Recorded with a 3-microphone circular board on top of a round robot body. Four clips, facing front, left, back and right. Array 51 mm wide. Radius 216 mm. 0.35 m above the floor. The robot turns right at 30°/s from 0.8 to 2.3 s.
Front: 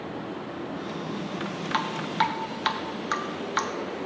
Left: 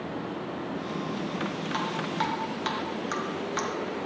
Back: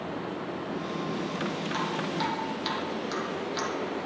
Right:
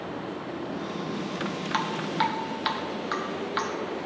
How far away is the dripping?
About 1.0 m.